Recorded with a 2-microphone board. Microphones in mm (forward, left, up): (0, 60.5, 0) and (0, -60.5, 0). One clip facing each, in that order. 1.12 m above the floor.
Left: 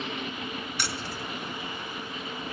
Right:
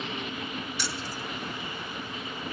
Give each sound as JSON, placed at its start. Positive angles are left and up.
{"t": 0.8, "sound": "keys jangling", "side_deg": 60, "distance_m": 0.5}